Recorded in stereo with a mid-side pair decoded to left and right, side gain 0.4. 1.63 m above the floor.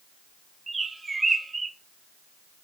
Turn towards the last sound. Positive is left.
turn(degrees=-25)